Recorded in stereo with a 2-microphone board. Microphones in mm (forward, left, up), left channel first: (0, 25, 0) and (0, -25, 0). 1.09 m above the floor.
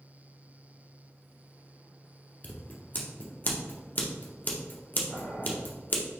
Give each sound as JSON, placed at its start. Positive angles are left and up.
{"t": 2.4, "sound": "scissors", "side_deg": 35, "distance_m": 0.7}
{"t": 5.1, "sound": "boiling", "side_deg": 40, "distance_m": 1.7}